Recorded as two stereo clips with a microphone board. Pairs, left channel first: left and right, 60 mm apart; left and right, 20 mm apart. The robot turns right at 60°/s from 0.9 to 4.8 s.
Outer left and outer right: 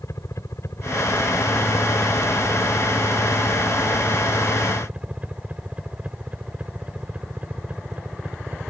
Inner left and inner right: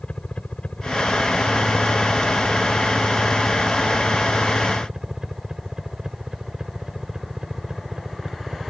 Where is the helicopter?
60° left (ahead or behind); by 8.7 s 25° right (ahead or behind).